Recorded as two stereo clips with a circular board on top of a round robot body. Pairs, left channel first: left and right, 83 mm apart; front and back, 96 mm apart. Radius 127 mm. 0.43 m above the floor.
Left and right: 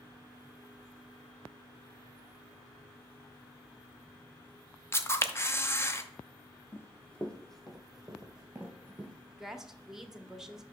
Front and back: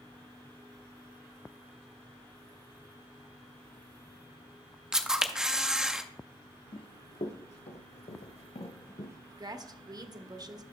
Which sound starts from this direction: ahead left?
Running footsteps, at 6.7 s.